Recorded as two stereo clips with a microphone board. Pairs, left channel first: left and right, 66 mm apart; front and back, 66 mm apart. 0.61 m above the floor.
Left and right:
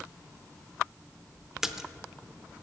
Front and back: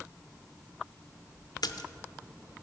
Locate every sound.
1.6 s a splash: 5° right, 0.6 m